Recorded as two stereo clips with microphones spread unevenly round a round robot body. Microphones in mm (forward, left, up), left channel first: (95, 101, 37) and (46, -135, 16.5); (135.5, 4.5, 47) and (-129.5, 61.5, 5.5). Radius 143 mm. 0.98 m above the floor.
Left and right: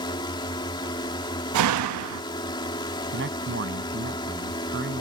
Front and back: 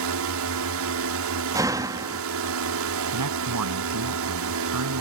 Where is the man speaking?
155° right.